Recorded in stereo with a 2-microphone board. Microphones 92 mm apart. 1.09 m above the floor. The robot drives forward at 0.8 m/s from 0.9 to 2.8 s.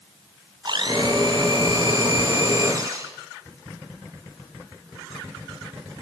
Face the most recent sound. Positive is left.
turn(degrees=-35)  # may be behind; listen again after turning